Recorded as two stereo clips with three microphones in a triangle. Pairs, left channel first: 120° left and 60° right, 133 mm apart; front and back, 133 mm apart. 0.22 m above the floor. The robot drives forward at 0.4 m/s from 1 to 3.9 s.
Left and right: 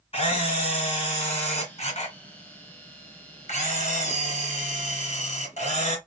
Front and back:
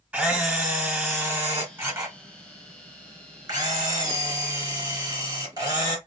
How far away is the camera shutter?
About 2.5 m.